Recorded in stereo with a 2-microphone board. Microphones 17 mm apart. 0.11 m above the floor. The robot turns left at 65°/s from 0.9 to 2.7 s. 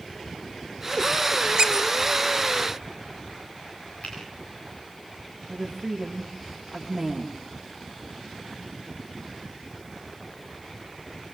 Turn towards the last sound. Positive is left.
turn(degrees=-10)  # may be behind; listen again after turning